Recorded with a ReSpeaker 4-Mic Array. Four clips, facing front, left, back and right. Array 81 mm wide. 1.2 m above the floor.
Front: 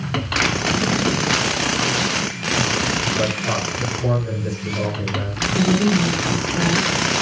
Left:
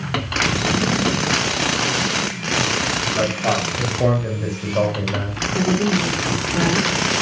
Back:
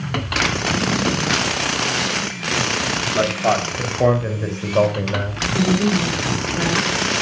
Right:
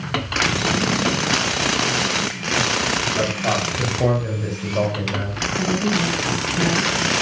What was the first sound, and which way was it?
A man speaking, 170° left.